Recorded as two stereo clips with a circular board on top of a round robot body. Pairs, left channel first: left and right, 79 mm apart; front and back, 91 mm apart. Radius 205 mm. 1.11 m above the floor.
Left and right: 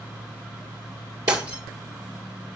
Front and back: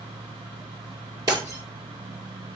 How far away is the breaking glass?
About 1.6 m.